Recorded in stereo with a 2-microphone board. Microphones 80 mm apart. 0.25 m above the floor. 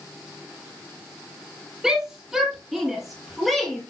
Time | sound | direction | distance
1.8 | a shout | 5° right (ahead or behind) | 6 m